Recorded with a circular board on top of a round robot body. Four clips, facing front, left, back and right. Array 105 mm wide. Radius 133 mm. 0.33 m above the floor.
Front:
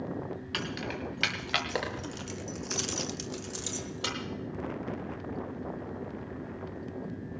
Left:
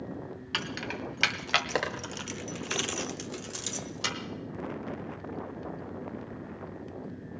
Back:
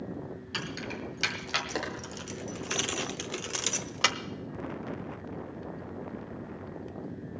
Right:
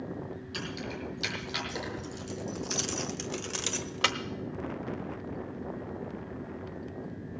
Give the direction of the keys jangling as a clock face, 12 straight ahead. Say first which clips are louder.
Left 3 dB, front 1 dB; 10 o'clock.